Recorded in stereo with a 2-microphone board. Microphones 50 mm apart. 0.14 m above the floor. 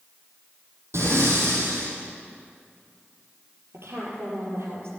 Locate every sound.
0.9 s breathing: 70° right (ahead or behind), 4 m
3.7 s a woman speaking: 65° right (ahead or behind), 4 m